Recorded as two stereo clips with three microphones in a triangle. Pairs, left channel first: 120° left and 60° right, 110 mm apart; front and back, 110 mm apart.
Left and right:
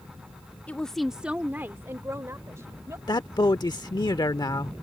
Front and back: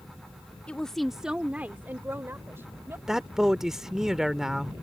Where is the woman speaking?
65° left; by 3.0 s 115° right.